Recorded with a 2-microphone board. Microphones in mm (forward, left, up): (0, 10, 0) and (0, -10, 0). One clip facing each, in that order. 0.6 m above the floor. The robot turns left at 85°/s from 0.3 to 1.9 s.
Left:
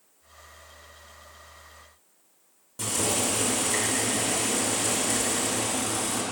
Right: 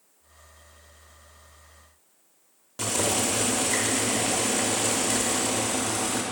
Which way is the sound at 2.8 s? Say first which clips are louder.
Right 2 dB; 40° right (ahead or behind).